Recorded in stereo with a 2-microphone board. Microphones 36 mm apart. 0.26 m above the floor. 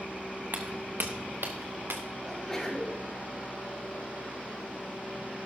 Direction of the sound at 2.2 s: 10° left (ahead or behind).